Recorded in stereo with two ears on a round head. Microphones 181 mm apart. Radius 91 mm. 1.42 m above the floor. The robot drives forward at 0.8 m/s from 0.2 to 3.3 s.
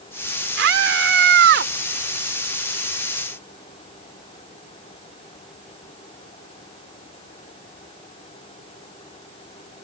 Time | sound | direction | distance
0.6 | a scream | 70° right (ahead or behind) | ?